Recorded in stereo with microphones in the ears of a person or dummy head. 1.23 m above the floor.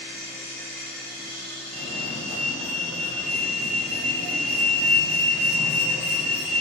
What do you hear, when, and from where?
0.0 s a machine running: 55° left (ahead or behind), 1.7 m
1.7 s a fire alarm: 45° left (ahead or behind), 1.1 m